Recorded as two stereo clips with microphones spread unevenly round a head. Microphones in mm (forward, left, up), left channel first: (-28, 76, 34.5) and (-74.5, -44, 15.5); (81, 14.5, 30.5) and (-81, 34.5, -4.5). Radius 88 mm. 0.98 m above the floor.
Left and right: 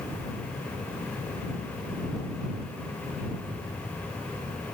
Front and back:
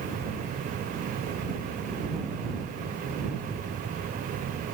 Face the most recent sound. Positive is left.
No sound to turn to.